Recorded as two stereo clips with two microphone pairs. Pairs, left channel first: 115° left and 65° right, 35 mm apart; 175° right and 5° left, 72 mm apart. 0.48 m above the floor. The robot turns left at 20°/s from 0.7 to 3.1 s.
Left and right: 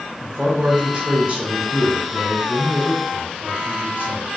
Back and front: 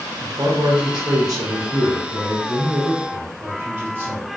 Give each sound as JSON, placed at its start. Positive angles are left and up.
{"t": 0.2, "sound": "a man speaking", "azimuth_deg": -5, "distance_m": 1.4}